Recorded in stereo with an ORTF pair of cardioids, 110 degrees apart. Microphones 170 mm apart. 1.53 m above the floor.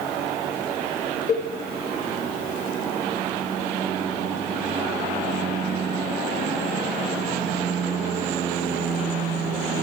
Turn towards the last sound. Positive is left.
turn(degrees=40)